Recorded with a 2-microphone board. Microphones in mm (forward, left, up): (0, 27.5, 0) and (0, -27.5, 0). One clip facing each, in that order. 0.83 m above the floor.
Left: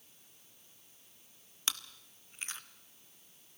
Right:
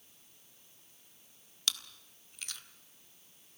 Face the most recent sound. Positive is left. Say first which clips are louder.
# right 1 dB
turn(degrees=30)  # may be behind; listen again after turning